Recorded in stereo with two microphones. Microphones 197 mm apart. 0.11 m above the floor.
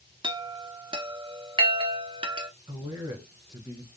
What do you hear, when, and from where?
0.2 s a chime: 25° right (ahead or behind), 0.6 m
2.7 s a man speaking: 15° right (ahead or behind), 1.5 m